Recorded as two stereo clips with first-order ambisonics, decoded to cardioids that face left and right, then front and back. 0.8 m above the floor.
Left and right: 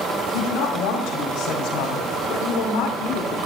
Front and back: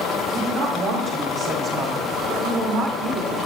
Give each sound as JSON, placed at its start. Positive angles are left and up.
{"t": 0.3, "sound": "a woman speaking", "azimuth_deg": 115, "distance_m": 4.5}